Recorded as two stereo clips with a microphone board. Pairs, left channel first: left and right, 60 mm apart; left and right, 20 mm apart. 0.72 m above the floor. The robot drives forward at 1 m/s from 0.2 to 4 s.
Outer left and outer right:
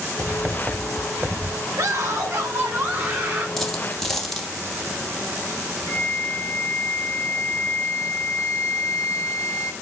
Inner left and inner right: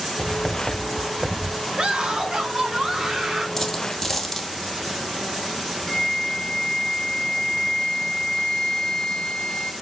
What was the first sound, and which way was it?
Writing, 15° right (ahead or behind).